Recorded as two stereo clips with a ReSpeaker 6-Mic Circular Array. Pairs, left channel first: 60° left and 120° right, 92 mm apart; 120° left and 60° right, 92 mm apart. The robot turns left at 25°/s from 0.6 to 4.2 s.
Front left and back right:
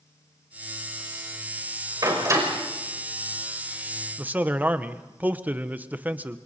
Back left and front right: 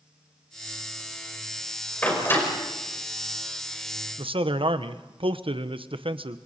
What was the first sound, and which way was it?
A door slam, 170° right.